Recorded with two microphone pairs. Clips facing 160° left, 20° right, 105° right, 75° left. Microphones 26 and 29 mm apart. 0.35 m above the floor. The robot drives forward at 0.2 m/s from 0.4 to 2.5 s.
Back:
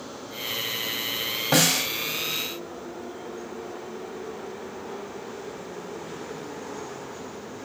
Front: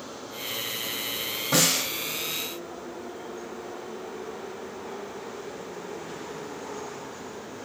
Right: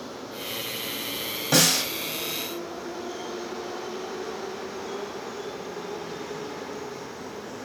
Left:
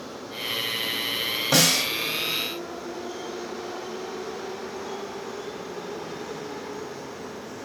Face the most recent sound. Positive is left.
turn(degrees=160)